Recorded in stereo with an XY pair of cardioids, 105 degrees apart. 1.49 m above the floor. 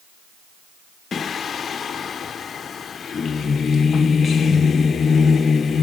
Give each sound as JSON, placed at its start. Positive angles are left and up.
{"t": 1.1, "sound": "singing", "azimuth_deg": 45, "distance_m": 0.8}